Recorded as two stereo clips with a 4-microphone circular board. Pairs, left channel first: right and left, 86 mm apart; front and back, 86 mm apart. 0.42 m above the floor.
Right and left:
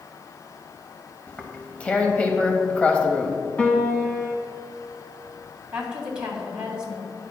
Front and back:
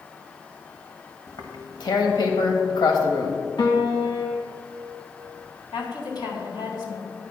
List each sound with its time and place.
1.3 s tearing paper: 20° right, 1.2 m
3.6 s a piano: 20° right, 1.5 m
5.7 s a woman speaking: 10° left, 3 m